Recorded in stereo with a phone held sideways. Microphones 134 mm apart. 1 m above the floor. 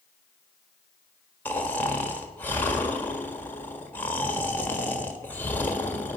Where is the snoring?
15° left (ahead or behind), 1.5 m.